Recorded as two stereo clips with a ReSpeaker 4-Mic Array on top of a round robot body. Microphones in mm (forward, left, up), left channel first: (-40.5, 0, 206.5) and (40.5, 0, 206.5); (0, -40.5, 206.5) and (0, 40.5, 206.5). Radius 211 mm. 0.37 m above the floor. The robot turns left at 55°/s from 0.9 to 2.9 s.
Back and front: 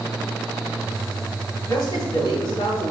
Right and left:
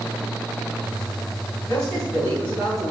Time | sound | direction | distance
1.7 | a man speaking | 150° right | 3 m